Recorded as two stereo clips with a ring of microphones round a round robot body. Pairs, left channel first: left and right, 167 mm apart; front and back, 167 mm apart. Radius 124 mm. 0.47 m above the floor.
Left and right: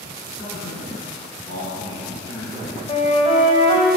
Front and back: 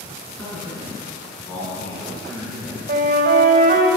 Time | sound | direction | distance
0.4 | a man speaking | 80° left | 6.5 m
2.9 | a flute | 150° left | 2.5 m